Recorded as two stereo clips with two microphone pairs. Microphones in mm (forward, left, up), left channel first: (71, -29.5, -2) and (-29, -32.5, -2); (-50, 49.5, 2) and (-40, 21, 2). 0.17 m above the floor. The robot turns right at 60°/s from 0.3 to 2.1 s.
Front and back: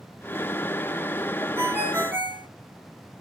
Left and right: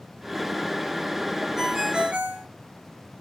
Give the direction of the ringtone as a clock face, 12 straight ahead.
5 o'clock.